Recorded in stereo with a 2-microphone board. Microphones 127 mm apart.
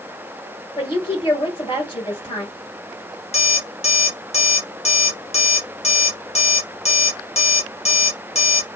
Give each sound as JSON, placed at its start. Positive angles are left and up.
{"t": 0.8, "sound": "a woman speaking", "side_deg": 40, "distance_m": 2.5}
{"t": 3.3, "sound": "an alarm clock", "side_deg": 55, "distance_m": 1.3}